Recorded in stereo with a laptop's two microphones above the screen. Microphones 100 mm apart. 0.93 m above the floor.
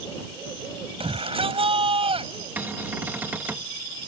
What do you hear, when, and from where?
1.0 s a shout: 70° right (ahead or behind)
2.6 s a cupboard door: 20° right (ahead or behind)